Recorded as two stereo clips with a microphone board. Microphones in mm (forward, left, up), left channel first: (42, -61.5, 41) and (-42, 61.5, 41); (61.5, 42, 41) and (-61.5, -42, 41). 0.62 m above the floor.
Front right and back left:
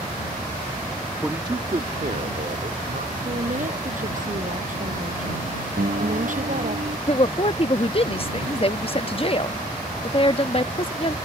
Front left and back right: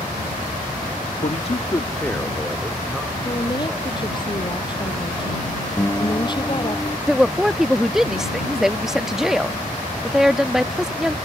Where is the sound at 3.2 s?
95° left.